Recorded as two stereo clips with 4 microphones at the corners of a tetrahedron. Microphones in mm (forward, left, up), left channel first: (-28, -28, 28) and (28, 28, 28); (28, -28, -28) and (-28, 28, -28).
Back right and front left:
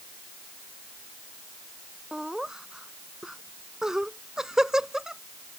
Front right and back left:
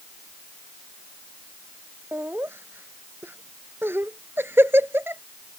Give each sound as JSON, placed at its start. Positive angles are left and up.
{"t": 2.1, "sound": "laughter", "azimuth_deg": 120}